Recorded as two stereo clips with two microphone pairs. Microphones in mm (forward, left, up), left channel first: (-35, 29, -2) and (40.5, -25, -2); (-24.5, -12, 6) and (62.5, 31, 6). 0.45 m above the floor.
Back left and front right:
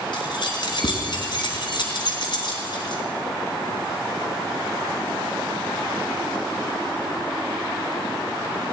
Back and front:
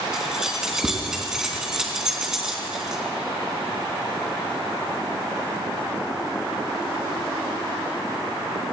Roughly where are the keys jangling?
Left.